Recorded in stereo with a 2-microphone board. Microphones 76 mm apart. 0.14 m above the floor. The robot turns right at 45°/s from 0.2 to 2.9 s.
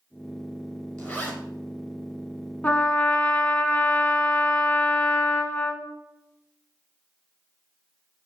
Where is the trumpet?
20° left (ahead or behind), 0.5 m.